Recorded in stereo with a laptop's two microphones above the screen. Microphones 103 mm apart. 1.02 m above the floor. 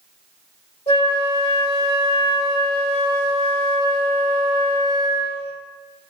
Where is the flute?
75° left (ahead or behind), 1.6 m.